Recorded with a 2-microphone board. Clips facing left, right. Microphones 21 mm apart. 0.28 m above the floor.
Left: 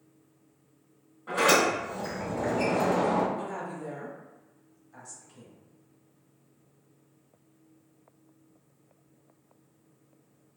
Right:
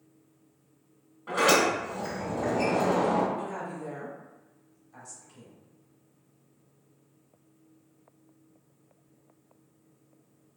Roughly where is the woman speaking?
Centre.